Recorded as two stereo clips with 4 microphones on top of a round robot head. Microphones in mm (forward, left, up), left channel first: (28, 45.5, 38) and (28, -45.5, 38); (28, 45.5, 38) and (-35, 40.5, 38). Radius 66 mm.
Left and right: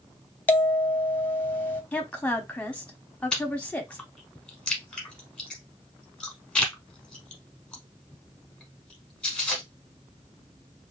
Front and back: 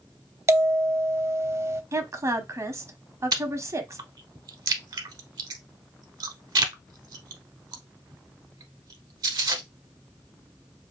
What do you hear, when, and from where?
0.5 s a bell: 155° left, 0.9 m
1.9 s a woman speaking: 165° left, 1.2 m
3.3 s chewing: 170° left, 0.9 m